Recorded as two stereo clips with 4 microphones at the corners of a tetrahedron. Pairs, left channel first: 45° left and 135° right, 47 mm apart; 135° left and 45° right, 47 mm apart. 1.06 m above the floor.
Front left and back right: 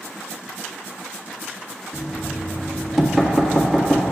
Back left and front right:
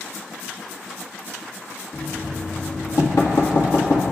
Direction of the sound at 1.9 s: 135° left.